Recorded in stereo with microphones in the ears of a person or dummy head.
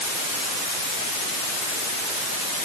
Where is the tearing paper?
I don't hear tearing paper.